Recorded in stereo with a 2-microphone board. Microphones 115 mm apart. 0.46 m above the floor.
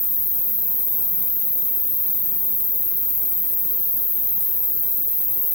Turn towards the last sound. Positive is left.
turn(degrees=-5)  # may be behind; listen again after turning